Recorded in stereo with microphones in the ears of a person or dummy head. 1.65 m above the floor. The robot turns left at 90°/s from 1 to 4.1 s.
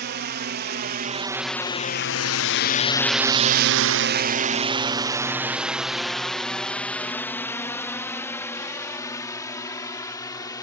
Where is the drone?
45° right (ahead or behind); by 10.6 s 25° left (ahead or behind).